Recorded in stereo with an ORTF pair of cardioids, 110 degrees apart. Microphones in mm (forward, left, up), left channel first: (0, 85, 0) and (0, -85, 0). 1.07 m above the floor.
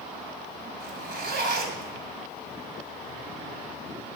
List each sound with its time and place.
0.8 s a zipper: 65° right, 3.5 m